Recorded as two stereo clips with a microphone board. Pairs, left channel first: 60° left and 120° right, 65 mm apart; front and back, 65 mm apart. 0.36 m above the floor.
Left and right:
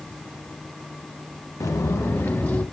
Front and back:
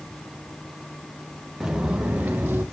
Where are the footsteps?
100° left, 1.8 m; by 2.6 s 125° left, 2.5 m.